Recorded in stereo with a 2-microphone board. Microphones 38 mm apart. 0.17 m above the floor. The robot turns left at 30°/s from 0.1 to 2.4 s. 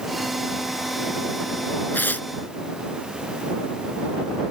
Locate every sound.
1.9 s tearing paper: 65° left (ahead or behind); by 2.3 s 60° left (ahead or behind)